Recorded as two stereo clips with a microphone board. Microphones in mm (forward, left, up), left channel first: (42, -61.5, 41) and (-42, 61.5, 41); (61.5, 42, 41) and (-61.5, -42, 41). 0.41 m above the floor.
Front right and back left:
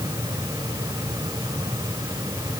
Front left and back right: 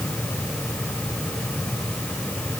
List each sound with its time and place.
Only background noise.